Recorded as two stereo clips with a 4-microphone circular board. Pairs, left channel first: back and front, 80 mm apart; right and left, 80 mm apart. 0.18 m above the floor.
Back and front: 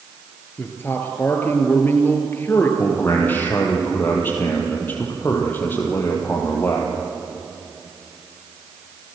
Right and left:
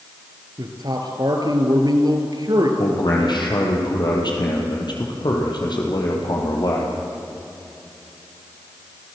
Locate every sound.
0.6 s a man speaking: 120° left, 3 m
2.8 s a man speaking: 115° right, 5 m